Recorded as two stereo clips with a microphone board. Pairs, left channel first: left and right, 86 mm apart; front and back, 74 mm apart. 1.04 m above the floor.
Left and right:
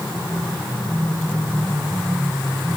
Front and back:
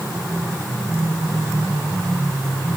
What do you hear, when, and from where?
Only background noise.